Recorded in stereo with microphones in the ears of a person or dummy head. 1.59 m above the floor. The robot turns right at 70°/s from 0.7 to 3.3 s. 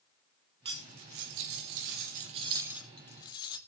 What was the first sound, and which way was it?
Cutlery clinking, 155° right.